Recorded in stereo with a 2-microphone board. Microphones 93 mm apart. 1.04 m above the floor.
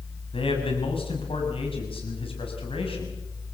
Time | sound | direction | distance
0.3 | a man speaking | 75° left (ahead or behind) | 6 m